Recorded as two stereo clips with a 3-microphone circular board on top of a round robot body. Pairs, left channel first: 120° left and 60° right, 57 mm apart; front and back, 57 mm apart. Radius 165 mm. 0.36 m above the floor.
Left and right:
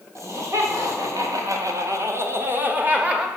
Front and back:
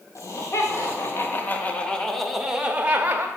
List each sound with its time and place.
0.1 s laughter: 30° right, 2.5 m; by 3.3 s 130° right, 1.8 m